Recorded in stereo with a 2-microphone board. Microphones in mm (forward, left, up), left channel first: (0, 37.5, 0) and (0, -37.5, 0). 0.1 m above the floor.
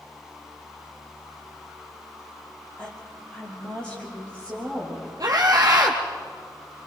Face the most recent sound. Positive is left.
turn(degrees=-45)  # may be behind; listen again after turning